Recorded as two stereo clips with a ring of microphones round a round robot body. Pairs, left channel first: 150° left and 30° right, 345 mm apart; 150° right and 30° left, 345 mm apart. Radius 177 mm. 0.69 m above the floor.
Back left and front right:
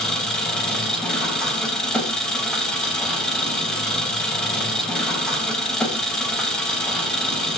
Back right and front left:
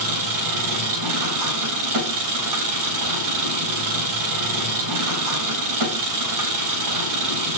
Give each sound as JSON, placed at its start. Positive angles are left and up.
{"t": 0.0, "sound": "an engine running", "azimuth_deg": 60, "distance_m": 3.5}